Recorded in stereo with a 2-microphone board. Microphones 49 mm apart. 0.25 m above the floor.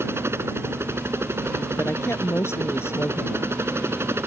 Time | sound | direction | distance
0.0 | a helicopter | 60° right (ahead or behind) | ?
1.8 | a woman speaking | 65° left (ahead or behind) | ?